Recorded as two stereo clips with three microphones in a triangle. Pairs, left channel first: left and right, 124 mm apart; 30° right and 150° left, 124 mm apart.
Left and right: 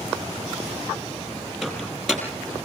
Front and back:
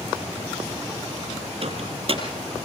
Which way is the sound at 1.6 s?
175° right.